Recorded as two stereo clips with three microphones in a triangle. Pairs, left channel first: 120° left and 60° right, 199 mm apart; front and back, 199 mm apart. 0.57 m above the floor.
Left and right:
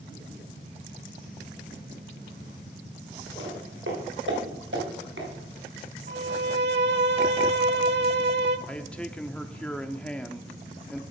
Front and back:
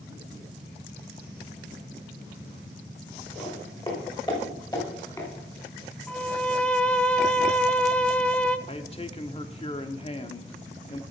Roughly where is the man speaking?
Ahead left.